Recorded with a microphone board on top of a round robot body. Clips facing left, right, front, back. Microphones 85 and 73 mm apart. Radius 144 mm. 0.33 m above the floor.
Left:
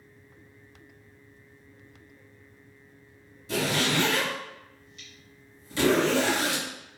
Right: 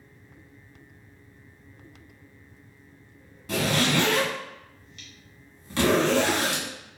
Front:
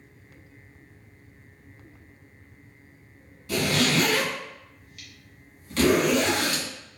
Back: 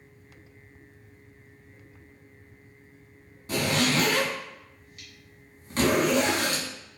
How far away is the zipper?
About 1.5 m.